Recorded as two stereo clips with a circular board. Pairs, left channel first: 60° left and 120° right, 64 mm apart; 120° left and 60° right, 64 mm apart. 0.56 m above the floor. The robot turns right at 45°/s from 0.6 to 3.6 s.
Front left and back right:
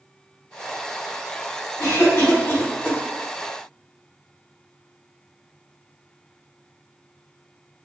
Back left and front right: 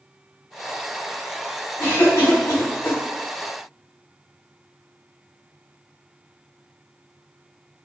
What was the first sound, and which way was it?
A cough, 75° left.